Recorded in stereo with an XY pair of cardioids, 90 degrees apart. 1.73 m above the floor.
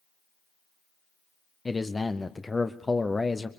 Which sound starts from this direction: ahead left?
A man speaking, at 1.6 s.